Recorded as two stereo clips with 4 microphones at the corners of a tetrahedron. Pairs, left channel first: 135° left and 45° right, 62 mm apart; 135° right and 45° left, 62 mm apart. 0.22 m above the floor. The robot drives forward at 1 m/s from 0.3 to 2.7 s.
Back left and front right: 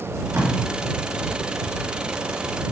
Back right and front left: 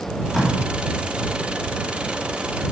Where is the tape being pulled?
50° right, 2.5 m; by 0.5 s 55° right, 2.5 m.